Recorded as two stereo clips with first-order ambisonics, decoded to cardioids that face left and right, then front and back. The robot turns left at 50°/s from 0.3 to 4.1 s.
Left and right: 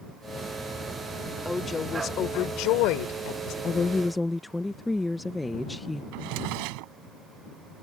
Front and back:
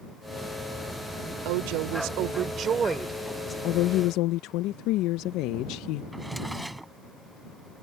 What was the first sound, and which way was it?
A woman speaking, straight behind.